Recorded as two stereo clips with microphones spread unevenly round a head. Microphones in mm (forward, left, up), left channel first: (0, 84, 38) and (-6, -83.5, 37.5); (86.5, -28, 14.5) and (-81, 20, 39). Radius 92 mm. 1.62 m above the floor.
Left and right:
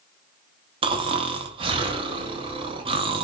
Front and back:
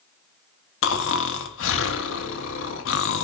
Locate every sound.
0.8 s snoring: 30° right, 0.5 m